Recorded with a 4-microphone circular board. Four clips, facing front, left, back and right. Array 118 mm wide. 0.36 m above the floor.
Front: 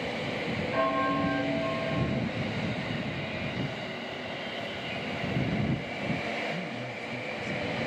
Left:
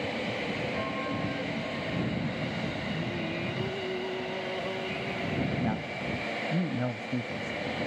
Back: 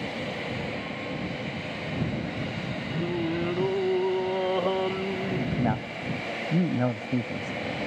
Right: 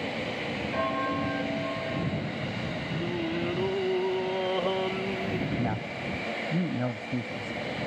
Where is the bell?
30° right.